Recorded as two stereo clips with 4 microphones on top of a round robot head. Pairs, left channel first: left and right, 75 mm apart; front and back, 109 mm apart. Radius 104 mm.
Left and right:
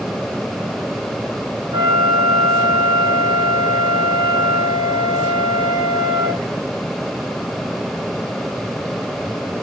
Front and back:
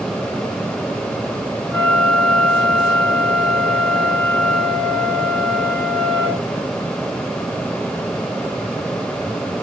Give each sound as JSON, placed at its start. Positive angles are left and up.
{"t": 1.7, "sound": "a flute", "azimuth_deg": -85, "distance_m": 0.7}